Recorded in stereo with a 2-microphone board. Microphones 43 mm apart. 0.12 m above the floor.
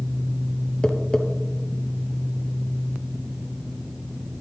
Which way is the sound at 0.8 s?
15° left (ahead or behind).